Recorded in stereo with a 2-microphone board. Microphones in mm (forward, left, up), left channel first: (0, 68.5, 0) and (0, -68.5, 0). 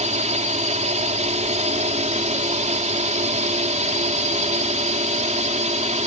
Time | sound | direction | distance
0.0 | a drone | 60° right (ahead or behind) | ?